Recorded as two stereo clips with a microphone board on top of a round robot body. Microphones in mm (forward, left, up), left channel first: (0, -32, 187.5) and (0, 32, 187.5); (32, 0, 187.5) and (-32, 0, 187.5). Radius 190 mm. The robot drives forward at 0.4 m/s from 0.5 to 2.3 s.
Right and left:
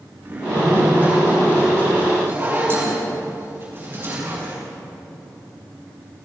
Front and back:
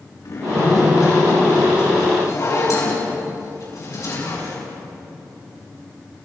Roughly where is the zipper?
Ahead left.